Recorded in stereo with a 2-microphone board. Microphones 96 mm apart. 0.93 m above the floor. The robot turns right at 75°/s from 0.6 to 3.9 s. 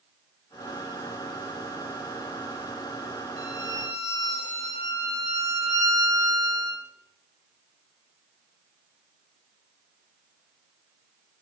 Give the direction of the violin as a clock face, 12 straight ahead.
3 o'clock.